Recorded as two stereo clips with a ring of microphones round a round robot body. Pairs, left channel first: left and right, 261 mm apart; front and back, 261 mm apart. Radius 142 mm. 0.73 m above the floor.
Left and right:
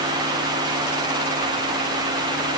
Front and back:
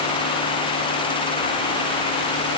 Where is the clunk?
No clunk in this recording.